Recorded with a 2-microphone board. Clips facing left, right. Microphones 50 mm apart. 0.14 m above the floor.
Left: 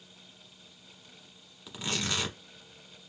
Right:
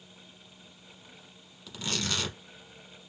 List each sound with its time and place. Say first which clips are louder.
1.7 s tearing paper: even; 15° left (ahead or behind), 1.2 m